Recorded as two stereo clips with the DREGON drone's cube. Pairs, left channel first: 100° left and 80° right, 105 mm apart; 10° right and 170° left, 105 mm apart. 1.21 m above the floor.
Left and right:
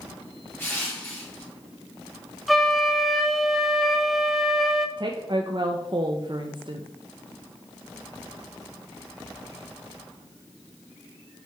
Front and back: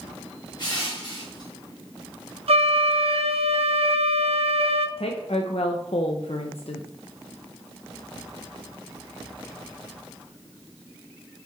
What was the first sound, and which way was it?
Crushing, 30° left.